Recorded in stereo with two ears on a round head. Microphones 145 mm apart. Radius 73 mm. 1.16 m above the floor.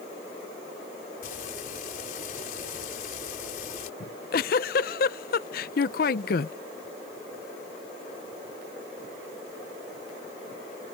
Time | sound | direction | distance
1.2 | frying | 55° left (ahead or behind) | ?
4.0 | a giggle | 60° left (ahead or behind) | ?